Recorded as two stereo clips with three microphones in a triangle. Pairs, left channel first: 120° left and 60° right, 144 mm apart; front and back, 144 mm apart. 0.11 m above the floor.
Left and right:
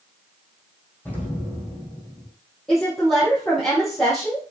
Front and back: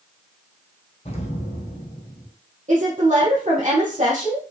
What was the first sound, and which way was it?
An explosion, 40° left.